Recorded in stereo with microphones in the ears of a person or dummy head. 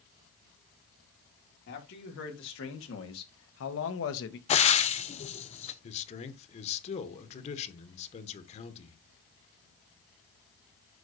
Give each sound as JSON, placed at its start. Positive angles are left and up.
{"t": 1.7, "sound": "a man speaking", "side_deg": 60, "distance_m": 2.5}
{"t": 4.5, "sound": "frying", "side_deg": 35, "distance_m": 0.6}
{"t": 5.8, "sound": "a man speaking", "side_deg": 40, "distance_m": 1.2}